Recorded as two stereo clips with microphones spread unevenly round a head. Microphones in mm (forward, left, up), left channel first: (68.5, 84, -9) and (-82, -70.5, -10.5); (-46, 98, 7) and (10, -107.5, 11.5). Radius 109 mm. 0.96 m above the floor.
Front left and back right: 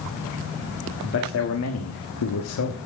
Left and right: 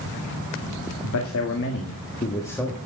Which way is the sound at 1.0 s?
85° left.